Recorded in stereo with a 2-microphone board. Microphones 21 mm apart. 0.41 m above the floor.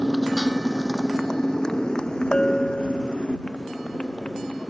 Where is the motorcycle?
15° left (ahead or behind); by 4.7 s 55° left (ahead or behind).